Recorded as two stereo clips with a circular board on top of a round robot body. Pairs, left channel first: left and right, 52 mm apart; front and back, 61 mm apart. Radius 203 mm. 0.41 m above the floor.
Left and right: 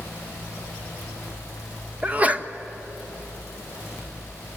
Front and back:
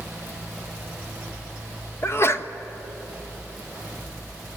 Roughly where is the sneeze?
Ahead right.